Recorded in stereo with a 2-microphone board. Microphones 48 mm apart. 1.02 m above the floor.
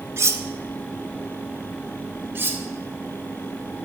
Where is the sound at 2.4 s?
50° right (ahead or behind), 1.6 m.